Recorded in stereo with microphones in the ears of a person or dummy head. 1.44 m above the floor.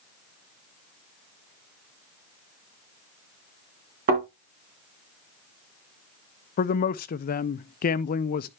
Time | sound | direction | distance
4.1 | a thud | 50° right (ahead or behind) | 4 m
6.6 | a man speaking | 45° left (ahead or behind) | 0.5 m